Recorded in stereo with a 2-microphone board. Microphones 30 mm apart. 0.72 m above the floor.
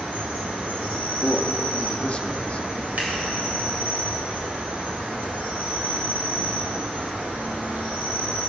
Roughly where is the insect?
Right.